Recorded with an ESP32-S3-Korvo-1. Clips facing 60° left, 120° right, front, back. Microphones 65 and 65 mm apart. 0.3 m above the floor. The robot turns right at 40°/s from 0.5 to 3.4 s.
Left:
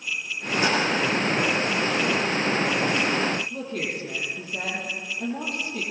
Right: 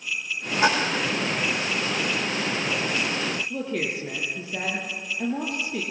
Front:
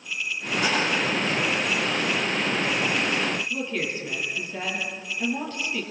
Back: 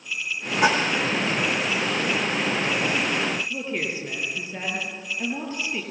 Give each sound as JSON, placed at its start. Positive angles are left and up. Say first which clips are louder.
{"t": 0.6, "sound": "a splash", "louder": "right 2 dB, back 5 dB", "azimuth_deg": 180, "distance_m": 9.5}
{"t": 3.5, "sound": "a woman speaking", "louder": "right 2 dB, even", "azimuth_deg": -110, "distance_m": 8.0}